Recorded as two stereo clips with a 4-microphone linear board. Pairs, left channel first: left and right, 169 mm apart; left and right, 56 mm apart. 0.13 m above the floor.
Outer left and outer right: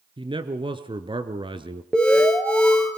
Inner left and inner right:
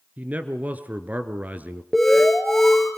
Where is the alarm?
5° left (ahead or behind), 2 m.